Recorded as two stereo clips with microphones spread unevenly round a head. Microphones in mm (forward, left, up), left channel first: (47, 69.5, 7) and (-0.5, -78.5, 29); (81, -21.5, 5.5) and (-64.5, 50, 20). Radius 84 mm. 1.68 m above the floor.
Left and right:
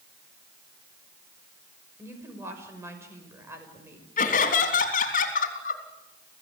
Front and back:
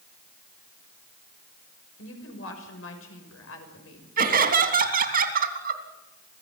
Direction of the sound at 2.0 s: 35° right.